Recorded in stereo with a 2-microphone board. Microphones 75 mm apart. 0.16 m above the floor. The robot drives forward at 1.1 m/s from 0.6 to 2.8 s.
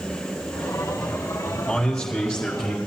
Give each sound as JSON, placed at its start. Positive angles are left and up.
{"t": 1.7, "sound": "a man speaking", "side_deg": 5, "distance_m": 4.5}